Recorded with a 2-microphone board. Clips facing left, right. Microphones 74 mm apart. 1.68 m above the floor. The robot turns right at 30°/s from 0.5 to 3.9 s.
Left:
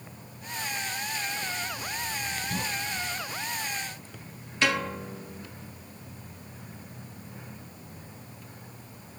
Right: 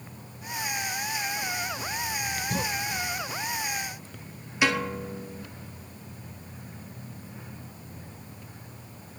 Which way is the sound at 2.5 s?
35° right (ahead or behind).